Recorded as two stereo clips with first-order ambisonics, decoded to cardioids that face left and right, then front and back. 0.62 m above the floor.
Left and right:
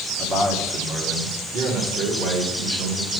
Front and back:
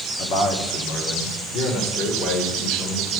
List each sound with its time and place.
0.2 s a man speaking: 25° right, 1.2 m; by 3.2 s 40° right, 3.5 m